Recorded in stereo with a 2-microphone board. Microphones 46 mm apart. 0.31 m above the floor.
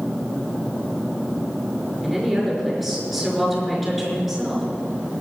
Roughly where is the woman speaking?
Centre.